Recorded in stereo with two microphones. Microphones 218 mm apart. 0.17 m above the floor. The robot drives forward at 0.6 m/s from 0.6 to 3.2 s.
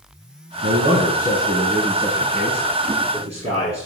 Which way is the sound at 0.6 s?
40° right (ahead or behind).